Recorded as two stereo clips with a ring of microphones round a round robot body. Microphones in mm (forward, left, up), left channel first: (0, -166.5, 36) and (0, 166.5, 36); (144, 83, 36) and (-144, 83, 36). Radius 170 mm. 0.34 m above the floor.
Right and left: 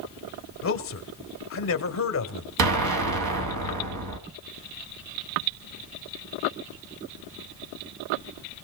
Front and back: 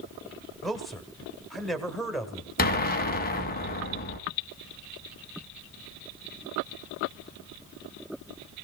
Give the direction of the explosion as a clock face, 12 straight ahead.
10 o'clock.